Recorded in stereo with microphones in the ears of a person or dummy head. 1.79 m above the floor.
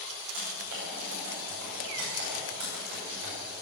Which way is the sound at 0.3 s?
65° right (ahead or behind).